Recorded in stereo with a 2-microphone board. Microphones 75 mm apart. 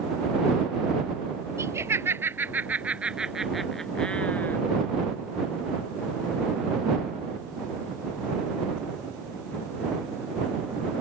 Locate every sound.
1.6 s laughter: 40° right (ahead or behind); by 4.6 s 25° left (ahead or behind)